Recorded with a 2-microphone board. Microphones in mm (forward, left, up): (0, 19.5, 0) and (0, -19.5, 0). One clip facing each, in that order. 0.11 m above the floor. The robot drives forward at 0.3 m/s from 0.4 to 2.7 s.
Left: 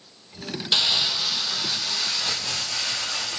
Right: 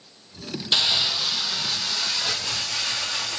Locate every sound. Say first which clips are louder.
0.7 s crumpling: even; centre (ahead or behind), 0.7 m